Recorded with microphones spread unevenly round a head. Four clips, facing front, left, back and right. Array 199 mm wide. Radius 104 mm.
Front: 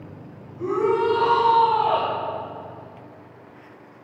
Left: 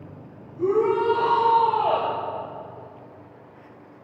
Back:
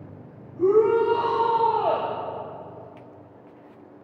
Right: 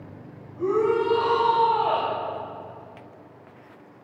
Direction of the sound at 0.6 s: 165° left.